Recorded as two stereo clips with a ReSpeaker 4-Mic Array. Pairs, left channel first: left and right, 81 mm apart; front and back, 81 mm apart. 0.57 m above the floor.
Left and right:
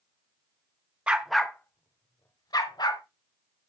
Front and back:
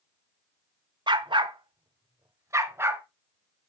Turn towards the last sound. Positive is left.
turn(degrees=115)